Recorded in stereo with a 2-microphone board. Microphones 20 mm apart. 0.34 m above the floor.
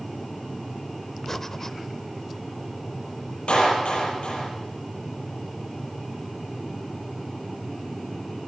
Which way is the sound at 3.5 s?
60° left (ahead or behind).